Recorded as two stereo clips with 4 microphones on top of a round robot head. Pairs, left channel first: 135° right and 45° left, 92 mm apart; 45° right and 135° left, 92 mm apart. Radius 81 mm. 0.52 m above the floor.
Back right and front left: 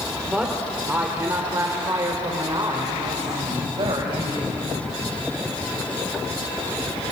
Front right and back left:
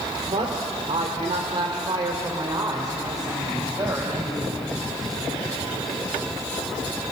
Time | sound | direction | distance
0.3 | a woman speaking | 130° left | 2 m